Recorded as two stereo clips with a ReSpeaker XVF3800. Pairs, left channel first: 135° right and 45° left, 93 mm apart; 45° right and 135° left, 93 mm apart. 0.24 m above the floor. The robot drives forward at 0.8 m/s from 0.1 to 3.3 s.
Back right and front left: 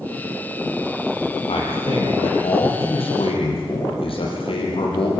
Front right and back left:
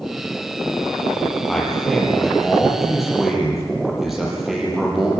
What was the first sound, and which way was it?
A man speaking, 130° right.